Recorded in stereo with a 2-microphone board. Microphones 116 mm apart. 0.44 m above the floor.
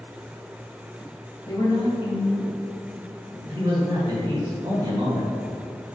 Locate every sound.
1.5 s a woman speaking: 35° left (ahead or behind), 2 m; by 3.4 s 65° left (ahead or behind), 2.5 m
3.5 s a man speaking: 35° right (ahead or behind), 2 m